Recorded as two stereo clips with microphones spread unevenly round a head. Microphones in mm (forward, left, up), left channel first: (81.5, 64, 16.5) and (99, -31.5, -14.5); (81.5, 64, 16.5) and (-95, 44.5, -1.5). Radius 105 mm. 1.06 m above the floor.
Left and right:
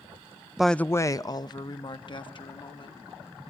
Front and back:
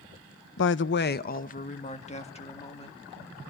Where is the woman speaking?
5° right, 0.6 m; by 3.0 s 65° left, 2.5 m.